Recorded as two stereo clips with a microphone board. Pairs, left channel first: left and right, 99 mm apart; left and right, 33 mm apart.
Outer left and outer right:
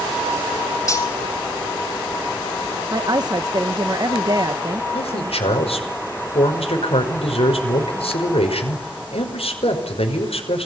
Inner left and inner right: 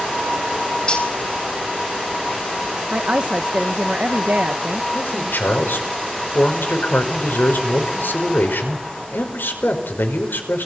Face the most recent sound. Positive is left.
turn(degrees=80)